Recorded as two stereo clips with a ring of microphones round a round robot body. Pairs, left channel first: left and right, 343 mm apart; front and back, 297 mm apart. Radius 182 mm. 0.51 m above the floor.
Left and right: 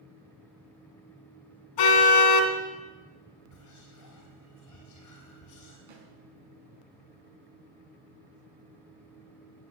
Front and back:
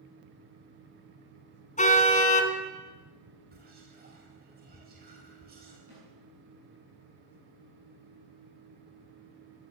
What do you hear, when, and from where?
1.8 s a car horn: 65° left, 2 m
3.5 s whispering: 125° left, 3.5 m
5.9 s a snare drum: 105° right, 7 m